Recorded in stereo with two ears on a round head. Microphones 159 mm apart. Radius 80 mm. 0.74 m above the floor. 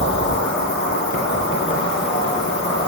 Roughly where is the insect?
Left.